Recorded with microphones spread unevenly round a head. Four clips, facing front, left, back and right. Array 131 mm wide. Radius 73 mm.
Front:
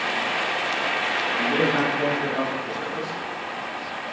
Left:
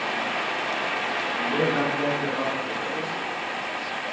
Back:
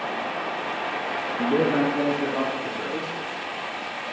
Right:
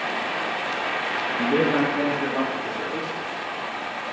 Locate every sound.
1.4 s a man speaking: 155° right, 1.9 m; by 3.2 s 150° right, 4 m